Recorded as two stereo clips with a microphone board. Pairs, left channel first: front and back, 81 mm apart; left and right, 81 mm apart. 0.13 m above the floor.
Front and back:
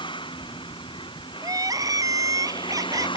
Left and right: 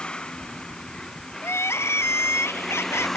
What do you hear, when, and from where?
0.0 s a vehicle: 10° left; by 3.2 s 5° left
1.4 s crying: 145° left